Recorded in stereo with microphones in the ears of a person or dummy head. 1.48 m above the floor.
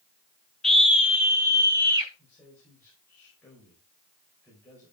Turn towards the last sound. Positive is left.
turn(degrees=15)  # may be behind; listen again after turning